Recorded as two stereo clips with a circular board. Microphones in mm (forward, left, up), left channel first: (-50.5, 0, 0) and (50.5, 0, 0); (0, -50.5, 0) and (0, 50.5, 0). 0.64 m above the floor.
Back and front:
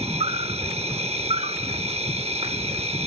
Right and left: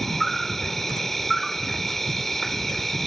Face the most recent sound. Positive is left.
turn(degrees=-5)